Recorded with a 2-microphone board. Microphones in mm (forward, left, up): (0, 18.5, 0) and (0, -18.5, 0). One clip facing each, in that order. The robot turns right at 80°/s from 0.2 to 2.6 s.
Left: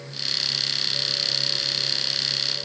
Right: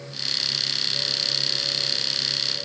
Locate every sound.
Only background noise.